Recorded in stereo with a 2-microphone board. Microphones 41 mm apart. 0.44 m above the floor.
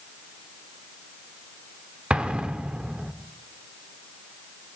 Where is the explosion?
30° right (ahead or behind), 0.9 m.